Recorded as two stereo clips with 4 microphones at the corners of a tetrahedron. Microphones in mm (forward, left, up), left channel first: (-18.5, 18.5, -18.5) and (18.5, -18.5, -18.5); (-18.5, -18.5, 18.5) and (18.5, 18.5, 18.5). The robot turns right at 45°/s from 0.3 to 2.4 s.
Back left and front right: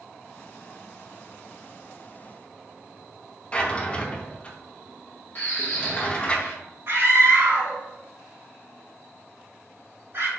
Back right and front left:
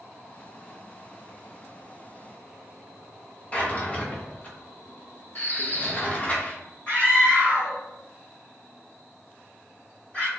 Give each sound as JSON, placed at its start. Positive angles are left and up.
{"t": 3.5, "sound": "a drawer", "azimuth_deg": -175, "distance_m": 0.6}
{"t": 5.3, "sound": "a bird", "azimuth_deg": -175, "distance_m": 1.4}
{"t": 6.9, "sound": "a scream", "azimuth_deg": -75, "distance_m": 1.9}